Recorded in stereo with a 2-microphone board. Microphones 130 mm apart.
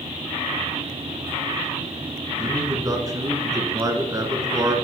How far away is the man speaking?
About 1.4 m.